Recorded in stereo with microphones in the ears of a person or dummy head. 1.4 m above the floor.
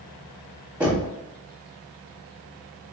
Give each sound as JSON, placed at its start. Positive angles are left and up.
{"t": 0.8, "sound": "knocking", "side_deg": -15, "distance_m": 1.0}